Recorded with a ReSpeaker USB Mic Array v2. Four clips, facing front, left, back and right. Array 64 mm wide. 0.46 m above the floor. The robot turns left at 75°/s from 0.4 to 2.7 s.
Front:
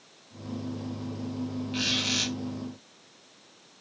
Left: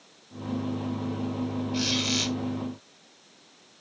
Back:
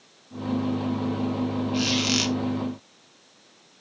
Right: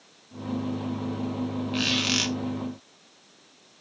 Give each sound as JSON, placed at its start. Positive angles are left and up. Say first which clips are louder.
{"t": 1.7, "sound": "a squeak", "louder": "right 3 dB, back 5 dB", "azimuth_deg": -85, "distance_m": 1.9}